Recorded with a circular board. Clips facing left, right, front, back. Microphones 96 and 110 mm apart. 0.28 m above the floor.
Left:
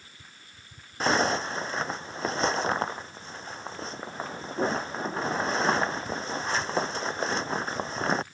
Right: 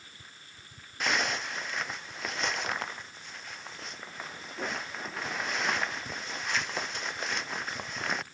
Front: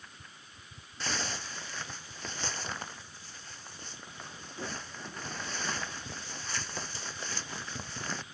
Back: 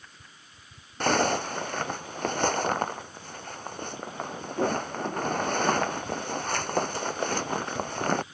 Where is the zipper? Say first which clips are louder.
Left 6 dB, back 14 dB; 150° left.